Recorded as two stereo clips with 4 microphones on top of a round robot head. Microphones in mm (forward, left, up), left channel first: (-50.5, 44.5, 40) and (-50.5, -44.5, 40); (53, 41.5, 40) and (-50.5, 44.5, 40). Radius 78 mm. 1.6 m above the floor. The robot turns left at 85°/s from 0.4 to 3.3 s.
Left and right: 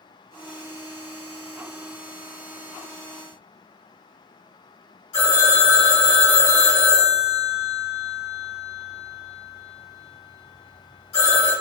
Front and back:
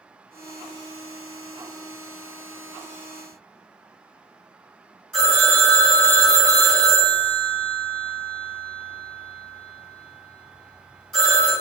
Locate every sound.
5.1 s a phone ringing: 90° left, 1.8 m